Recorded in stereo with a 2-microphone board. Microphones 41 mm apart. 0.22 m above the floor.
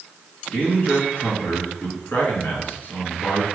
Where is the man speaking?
50° left (ahead or behind), 3 m.